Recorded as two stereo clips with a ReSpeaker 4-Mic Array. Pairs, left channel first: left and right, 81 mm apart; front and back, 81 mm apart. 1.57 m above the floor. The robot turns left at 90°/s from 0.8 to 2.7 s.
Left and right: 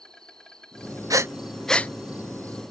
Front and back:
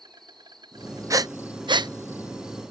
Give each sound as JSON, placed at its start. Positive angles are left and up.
{"t": 0.0, "sound": "an insect", "azimuth_deg": 170}
{"t": 1.1, "sound": "breathing", "azimuth_deg": -135}